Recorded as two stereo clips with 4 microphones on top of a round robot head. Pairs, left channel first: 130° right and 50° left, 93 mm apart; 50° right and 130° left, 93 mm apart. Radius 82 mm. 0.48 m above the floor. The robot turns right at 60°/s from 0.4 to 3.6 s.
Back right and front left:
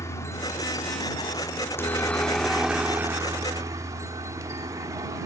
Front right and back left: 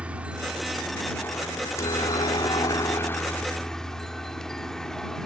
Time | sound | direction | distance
0.0 | a helicopter | 165° right | ?